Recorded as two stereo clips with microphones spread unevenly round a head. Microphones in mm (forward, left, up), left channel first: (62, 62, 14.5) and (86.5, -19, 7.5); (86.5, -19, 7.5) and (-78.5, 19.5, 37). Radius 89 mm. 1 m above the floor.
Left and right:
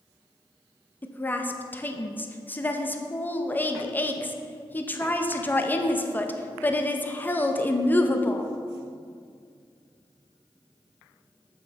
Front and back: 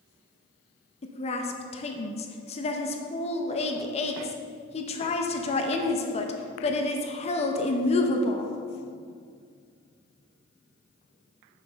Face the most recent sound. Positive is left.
turn(degrees=35)